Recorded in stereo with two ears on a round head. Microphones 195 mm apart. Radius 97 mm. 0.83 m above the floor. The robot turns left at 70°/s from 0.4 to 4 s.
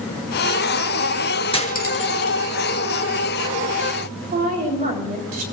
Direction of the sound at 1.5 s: 25° left (ahead or behind).